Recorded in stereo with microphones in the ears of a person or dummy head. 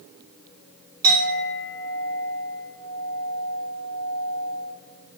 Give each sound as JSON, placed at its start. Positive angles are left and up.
{"t": 1.0, "sound": "a clink", "side_deg": -15, "distance_m": 4.0}